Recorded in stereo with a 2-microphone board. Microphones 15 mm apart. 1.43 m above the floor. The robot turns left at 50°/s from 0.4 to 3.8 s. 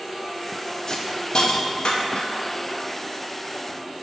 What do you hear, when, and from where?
0.9 s a hiss: 40° left (ahead or behind), 0.7 m; by 2.4 s 55° left (ahead or behind), 0.7 m